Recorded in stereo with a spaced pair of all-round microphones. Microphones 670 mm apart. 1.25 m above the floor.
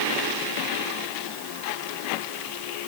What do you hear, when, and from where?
Only background noise.